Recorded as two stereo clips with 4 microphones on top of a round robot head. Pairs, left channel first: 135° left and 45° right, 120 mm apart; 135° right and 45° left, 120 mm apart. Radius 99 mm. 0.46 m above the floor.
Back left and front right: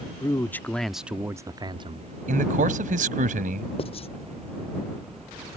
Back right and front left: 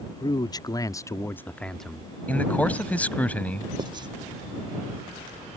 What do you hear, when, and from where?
0.2 s a man speaking: 175° right; by 2.1 s 40° right
2.3 s a man speaking: 55° right
3.8 s writing: 100° left